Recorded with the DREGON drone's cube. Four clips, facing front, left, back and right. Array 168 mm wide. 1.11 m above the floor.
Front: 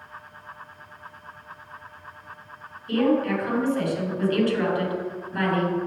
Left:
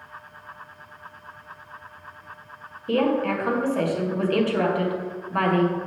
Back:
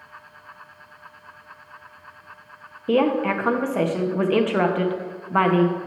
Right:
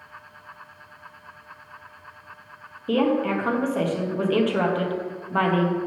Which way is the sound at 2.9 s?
170° right.